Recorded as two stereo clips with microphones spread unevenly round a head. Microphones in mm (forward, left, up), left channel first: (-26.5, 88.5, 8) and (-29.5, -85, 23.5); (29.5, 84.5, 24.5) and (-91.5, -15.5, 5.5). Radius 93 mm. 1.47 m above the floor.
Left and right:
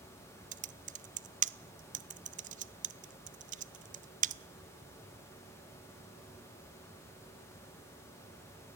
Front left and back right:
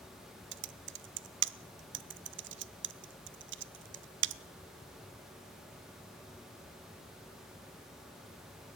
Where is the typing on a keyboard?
140° right, 0.6 m.